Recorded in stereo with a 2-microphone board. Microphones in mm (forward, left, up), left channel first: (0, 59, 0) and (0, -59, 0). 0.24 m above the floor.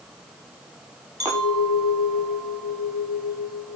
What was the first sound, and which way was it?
A clink, 25° right (ahead or behind).